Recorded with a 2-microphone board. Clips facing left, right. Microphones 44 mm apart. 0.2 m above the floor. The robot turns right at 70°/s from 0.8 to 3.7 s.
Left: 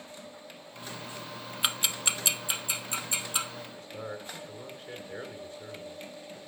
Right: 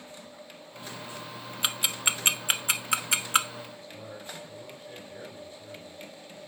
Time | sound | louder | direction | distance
1.6 | ticking | right 1 dB | 5° left (ahead or behind) | 0.7 m
3.6 | a man speaking | left 3 dB | 55° left (ahead or behind) | 3 m